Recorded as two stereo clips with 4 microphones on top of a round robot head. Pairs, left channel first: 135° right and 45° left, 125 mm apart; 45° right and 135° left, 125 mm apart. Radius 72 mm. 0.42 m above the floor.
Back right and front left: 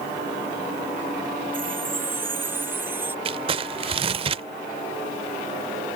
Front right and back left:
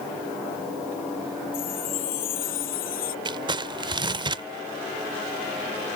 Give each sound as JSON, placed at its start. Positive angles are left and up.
{"t": 1.5, "sound": "a chime", "azimuth_deg": -30}
{"t": 3.2, "sound": "crumpling", "azimuth_deg": 85}